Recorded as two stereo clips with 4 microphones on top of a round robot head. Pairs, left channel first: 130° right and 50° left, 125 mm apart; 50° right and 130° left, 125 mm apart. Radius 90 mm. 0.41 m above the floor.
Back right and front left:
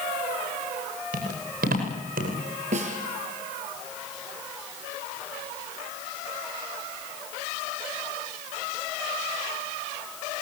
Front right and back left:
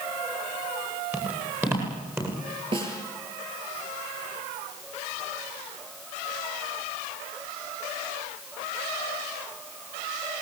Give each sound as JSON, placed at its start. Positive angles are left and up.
{"t": 1.1, "sound": "footsteps", "azimuth_deg": 55, "distance_m": 9.0}
{"t": 2.7, "sound": "a snare drum", "azimuth_deg": 80, "distance_m": 6.5}